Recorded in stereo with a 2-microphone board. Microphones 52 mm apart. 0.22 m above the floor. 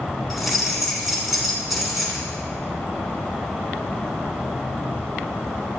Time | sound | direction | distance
0.3 | keys jangling | centre (ahead or behind) | 1.8 m